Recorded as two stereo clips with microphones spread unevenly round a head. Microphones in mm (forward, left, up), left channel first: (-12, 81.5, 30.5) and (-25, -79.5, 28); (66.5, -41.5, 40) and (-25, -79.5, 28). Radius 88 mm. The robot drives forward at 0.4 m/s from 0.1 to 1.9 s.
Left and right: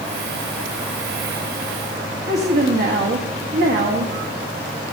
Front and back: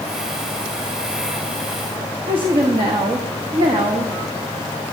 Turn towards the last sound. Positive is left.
turn(degrees=-125)